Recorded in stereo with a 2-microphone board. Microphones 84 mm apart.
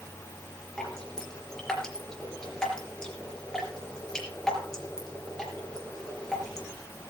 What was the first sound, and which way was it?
Dripping, 5° left (ahead or behind).